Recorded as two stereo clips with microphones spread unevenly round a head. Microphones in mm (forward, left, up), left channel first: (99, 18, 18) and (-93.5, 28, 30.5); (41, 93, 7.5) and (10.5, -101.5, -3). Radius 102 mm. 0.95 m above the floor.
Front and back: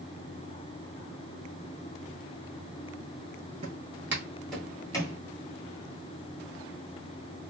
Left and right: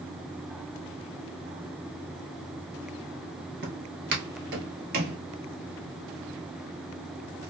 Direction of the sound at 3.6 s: 125° right.